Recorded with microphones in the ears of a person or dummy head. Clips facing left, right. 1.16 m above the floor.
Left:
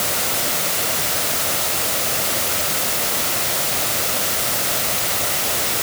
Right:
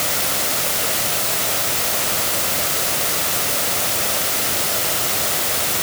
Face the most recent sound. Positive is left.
No sound to turn to.